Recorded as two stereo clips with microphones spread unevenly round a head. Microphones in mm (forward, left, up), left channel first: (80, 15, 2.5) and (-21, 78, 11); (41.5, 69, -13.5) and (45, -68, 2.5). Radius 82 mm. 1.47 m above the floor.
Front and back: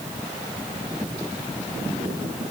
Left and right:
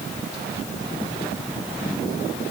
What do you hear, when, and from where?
Only background noise.